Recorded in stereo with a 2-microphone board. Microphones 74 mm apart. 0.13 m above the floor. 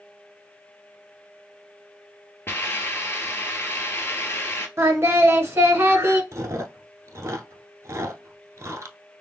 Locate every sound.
2.5 s a hiss: 30° left (ahead or behind), 1.0 m
4.8 s singing: 35° right (ahead or behind), 1.1 m
6.3 s chewing: 40° right (ahead or behind), 0.7 m